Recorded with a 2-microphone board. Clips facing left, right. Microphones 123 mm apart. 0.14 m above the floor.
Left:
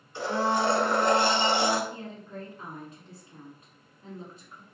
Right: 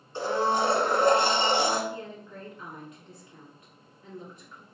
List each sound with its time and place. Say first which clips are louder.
0.1 s a blender: right 1 dB; 30° right (ahead or behind), 1.1 m
1.9 s a woman speaking: right 1 dB; 30° left (ahead or behind), 1.3 m